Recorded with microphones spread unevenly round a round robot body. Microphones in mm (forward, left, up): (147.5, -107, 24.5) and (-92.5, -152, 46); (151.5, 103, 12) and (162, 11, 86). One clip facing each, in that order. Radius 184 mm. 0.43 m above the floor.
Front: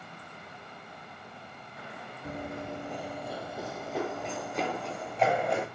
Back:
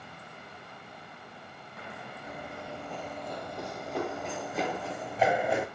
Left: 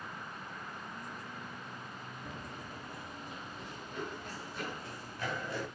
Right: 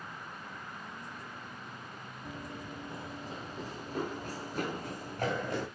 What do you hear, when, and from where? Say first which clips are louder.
2.2 s running footsteps: front 6 dB, right 5 dB; 45° right, 0.5 m; by 5.7 s 85° right, 2.5 m